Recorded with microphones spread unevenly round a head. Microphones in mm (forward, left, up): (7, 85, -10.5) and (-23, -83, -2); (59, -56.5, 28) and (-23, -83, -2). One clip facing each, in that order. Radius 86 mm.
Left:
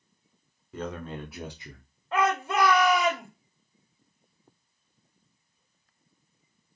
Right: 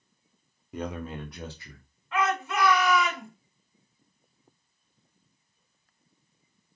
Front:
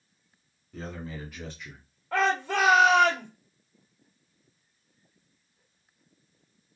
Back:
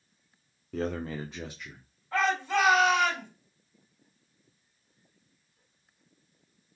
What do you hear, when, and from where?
0.7 s a man speaking: 165° right, 0.7 m; by 1.9 s 30° left, 0.7 m
2.1 s a shout: 20° left, 2 m